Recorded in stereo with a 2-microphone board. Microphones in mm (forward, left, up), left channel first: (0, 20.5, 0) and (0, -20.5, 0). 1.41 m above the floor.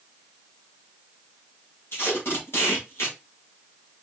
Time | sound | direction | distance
1.9 | tape being pulled | 80° left | 2.5 m